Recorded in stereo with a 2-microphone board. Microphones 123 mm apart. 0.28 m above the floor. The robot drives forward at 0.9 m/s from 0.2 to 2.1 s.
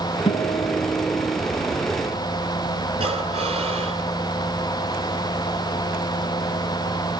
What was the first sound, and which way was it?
A guitar, 55° left (ahead or behind).